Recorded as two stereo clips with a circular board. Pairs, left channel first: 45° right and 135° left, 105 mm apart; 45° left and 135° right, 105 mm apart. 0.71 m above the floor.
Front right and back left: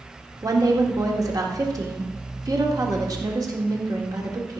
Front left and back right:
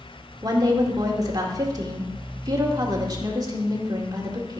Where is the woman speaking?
Straight behind, 1.9 m.